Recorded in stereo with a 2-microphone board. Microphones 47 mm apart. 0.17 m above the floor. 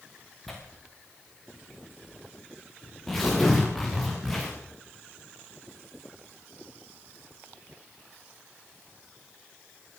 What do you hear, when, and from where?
0.5 s tearing paper: 5° left (ahead or behind), 7 m